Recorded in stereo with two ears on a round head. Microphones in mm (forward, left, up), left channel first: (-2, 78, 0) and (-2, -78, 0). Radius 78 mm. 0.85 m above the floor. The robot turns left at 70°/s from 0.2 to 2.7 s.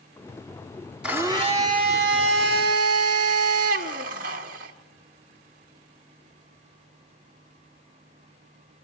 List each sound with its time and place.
1.0 s a blender: 5° right, 1.6 m; by 4.7 s 120° right, 1.6 m